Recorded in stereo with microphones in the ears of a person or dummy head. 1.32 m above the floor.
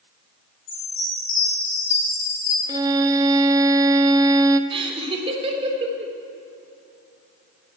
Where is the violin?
20° right (ahead or behind), 0.5 m.